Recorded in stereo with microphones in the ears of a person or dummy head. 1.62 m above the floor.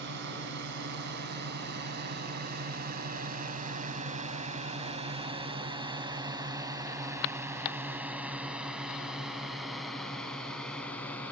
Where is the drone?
60° right (ahead or behind); by 11.3 s 20° left (ahead or behind).